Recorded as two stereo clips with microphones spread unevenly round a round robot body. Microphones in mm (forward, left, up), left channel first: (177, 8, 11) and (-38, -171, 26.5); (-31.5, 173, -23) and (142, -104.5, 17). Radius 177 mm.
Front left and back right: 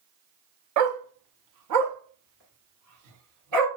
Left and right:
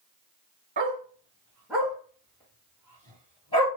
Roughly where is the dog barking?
Behind right.